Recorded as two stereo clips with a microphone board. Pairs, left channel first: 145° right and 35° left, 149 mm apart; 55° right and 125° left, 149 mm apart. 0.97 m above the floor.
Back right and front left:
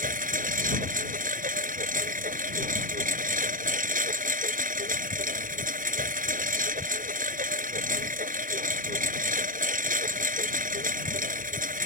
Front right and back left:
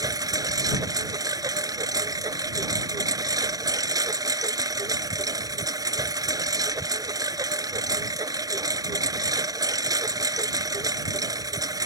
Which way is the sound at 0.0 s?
60° left.